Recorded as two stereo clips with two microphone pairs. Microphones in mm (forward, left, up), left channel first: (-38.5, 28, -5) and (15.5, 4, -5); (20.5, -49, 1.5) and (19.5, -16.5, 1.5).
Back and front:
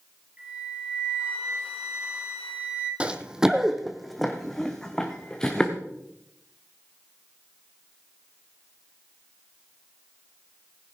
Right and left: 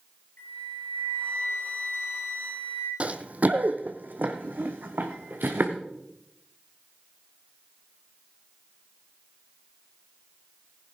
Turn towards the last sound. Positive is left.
turn(degrees=80)